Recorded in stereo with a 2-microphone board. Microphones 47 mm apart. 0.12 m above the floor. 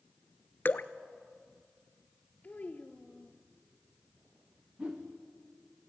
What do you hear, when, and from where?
0.7 s dripping: 45° left (ahead or behind), 0.7 m
2.4 s a child speaking: 35° left (ahead or behind), 1.7 m
4.8 s a whoosh: 20° right (ahead or behind), 3 m